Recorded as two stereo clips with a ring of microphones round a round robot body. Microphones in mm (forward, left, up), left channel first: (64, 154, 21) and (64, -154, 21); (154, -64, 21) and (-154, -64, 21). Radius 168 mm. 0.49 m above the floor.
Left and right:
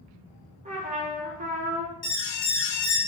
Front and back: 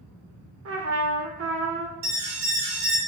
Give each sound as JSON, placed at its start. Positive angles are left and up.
{"t": 0.7, "sound": "a trumpet", "azimuth_deg": -150, "distance_m": 1.9}
{"t": 2.0, "sound": "an alarm", "azimuth_deg": 120, "distance_m": 1.2}